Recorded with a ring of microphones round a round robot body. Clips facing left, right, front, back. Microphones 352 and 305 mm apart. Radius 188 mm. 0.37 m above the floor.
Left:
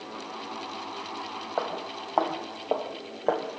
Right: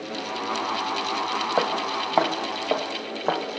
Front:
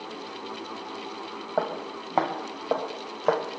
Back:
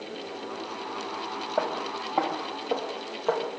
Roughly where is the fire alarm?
I don't hear a fire alarm.